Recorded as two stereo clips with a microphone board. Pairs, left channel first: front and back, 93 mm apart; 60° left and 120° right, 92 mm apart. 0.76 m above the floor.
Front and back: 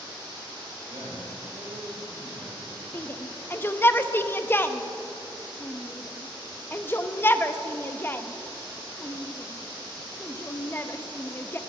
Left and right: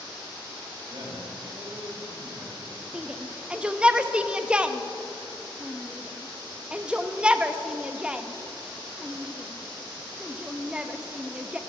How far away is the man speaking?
About 4.5 m.